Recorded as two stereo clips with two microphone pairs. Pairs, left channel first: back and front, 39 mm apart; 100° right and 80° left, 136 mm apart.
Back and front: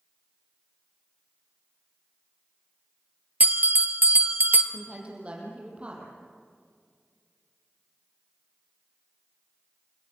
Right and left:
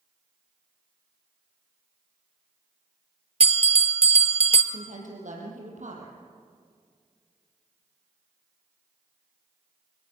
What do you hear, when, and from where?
3.4 s a bell: 45° left, 1.1 m
4.7 s a woman speaking: 60° left, 5.5 m